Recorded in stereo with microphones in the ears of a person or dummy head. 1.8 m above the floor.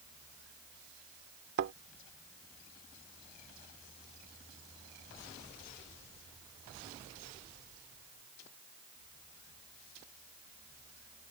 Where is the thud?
65° right (ahead or behind).